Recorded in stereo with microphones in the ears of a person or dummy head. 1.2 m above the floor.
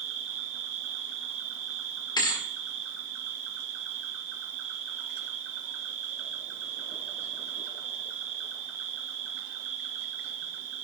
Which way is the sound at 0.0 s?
65° right (ahead or behind).